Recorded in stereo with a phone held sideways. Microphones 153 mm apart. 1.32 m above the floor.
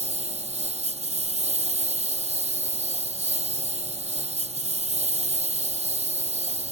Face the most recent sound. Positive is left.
turn(degrees=-45)  # may be behind; listen again after turning